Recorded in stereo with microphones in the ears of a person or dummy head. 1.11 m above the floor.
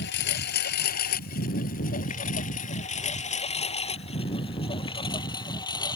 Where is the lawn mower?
65° left (ahead or behind); by 6.0 s 25° left (ahead or behind).